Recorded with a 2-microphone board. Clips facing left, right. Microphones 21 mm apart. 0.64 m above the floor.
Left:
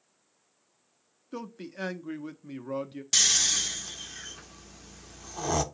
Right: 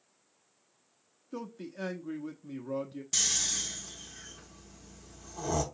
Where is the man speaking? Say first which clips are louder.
Left 2 dB; 30° left (ahead or behind), 1.0 m.